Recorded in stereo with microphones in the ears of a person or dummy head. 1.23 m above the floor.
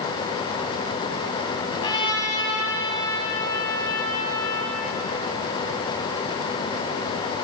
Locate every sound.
1.7 s a trumpet: 20° left (ahead or behind), 6 m